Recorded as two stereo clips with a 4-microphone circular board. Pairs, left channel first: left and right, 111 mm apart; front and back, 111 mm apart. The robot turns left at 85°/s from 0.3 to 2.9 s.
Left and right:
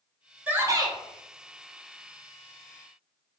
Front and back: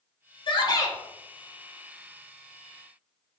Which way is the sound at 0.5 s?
15° right.